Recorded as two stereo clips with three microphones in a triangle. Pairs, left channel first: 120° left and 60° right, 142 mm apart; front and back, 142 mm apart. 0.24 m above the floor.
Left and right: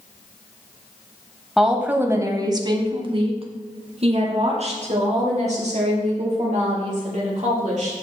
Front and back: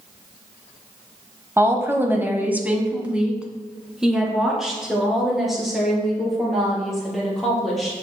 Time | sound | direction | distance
1.6 | a woman speaking | 145° right | 1.0 m